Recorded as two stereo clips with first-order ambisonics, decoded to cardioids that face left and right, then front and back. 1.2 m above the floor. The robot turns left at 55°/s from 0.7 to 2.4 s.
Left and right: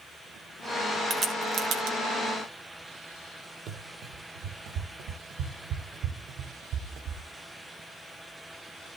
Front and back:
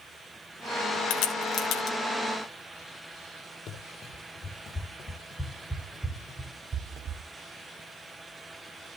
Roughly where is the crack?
Ahead.